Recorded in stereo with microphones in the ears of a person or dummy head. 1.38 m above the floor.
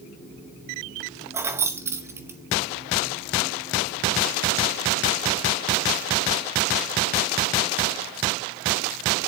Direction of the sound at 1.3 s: 10° right (ahead or behind).